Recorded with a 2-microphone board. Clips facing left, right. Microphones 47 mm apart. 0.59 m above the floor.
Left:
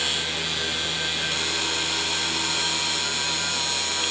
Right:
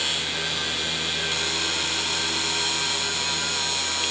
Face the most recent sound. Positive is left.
No sound to turn to.